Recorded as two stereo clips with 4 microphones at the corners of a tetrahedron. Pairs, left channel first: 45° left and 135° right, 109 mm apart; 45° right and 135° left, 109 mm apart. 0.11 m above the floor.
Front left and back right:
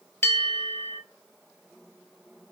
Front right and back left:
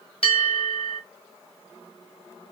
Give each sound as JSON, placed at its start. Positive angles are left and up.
{"t": 0.2, "sound": "a bell", "azimuth_deg": -20, "distance_m": 1.2}